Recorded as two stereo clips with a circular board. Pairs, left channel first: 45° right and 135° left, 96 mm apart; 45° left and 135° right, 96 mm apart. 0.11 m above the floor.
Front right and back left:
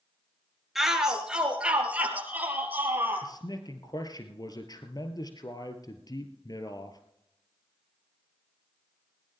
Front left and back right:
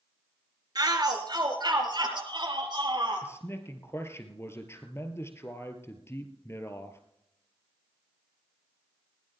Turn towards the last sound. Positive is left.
turn(degrees=-10)